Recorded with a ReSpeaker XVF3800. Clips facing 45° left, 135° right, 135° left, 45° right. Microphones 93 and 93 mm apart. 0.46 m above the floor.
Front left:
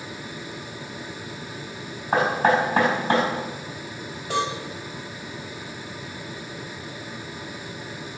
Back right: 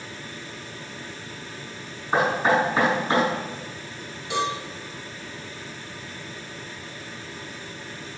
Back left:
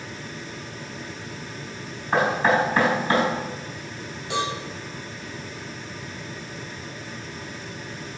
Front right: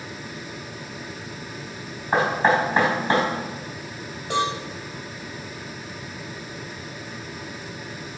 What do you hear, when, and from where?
2.1 s knocking: 15° left, 3 m
4.3 s a cowbell: straight ahead, 2.5 m